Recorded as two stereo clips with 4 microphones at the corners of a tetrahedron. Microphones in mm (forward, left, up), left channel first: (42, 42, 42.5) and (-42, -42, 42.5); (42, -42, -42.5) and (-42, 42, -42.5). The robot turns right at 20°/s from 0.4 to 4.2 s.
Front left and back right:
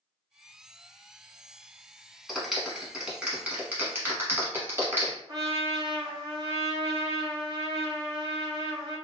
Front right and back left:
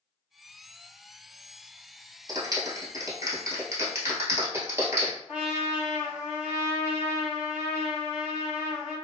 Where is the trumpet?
150° right, 1.1 m.